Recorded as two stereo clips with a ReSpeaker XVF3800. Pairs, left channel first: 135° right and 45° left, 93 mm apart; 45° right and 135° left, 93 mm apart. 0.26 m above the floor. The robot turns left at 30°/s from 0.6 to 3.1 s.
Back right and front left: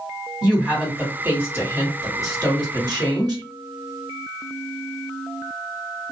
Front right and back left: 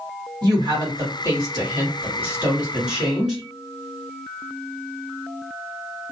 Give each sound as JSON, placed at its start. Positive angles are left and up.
{"t": 0.4, "sound": "a woman speaking", "azimuth_deg": 125, "distance_m": 1.9}